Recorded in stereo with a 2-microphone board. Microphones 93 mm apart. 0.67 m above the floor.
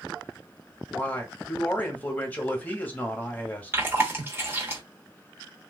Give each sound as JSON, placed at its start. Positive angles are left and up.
{"t": 0.9, "sound": "a man speaking", "side_deg": 20, "distance_m": 0.9}
{"t": 3.7, "sound": "chewing", "side_deg": -25, "distance_m": 1.1}